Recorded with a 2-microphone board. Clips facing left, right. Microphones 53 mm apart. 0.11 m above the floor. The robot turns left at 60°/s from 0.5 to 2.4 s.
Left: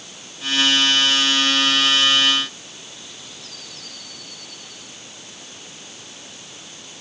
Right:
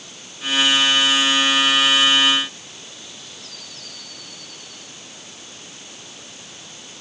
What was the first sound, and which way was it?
Only background noise.